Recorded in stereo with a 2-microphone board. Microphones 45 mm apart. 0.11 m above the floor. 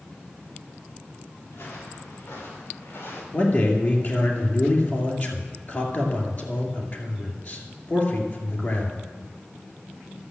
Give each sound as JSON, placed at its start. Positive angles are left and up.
{"t": 1.5, "sound": "footsteps", "side_deg": 90, "distance_m": 5.5}
{"t": 3.3, "sound": "a man speaking", "side_deg": 45, "distance_m": 2.5}